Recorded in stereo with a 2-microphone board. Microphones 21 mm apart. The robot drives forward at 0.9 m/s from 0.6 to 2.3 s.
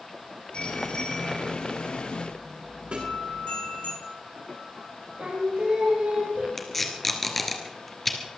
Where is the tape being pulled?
10° left (ahead or behind), 2.5 m.